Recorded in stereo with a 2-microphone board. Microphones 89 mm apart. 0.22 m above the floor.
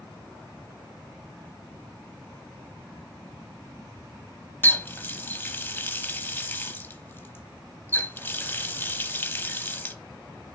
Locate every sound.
4.6 s a running tap: 25° left (ahead or behind), 0.6 m